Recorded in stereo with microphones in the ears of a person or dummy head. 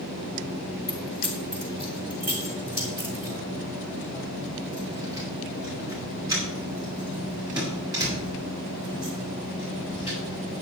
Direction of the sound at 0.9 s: Centre (ahead or behind).